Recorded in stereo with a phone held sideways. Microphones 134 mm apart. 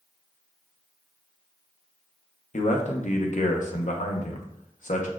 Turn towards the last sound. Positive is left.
turn(degrees=65)  # may be behind; listen again after turning